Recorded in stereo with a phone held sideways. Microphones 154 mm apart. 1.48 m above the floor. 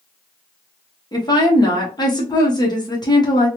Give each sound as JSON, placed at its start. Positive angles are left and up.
{"t": 1.1, "sound": "a woman speaking", "side_deg": 25, "distance_m": 1.0}